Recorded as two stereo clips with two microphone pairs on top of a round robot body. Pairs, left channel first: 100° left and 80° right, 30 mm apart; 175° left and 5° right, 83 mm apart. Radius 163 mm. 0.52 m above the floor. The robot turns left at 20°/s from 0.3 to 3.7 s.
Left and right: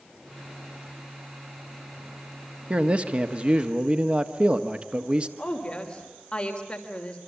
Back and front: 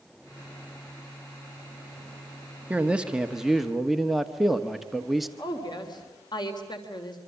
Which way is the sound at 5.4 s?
160° left.